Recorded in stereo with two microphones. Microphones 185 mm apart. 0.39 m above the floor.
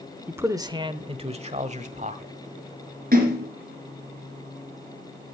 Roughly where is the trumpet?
I don't hear a trumpet.